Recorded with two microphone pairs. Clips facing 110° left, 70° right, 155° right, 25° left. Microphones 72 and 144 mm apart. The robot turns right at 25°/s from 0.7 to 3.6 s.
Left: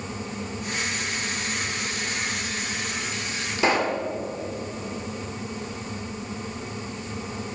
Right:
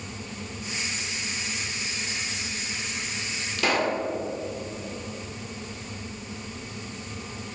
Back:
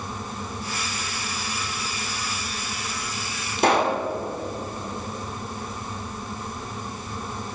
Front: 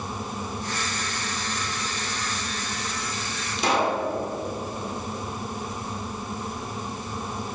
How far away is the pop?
About 1.4 m.